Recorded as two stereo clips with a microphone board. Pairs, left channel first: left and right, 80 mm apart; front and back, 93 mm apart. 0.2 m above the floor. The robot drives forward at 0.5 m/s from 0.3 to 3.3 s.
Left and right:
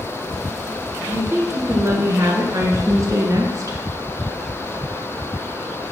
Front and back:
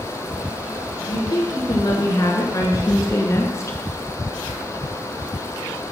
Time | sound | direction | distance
1.1 | a woman speaking | 35° right | 3 m